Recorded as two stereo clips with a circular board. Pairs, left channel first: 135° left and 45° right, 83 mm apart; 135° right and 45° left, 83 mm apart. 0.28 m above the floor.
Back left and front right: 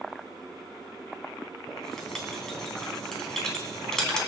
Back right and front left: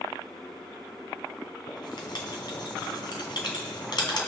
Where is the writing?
140° right, 2 m.